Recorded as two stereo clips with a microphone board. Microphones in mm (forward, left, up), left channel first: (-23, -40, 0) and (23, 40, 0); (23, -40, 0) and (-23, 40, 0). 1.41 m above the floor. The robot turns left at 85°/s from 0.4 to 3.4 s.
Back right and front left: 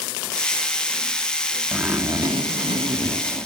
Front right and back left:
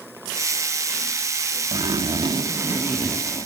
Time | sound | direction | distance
1.7 | a zipper | 140° left | 1.7 m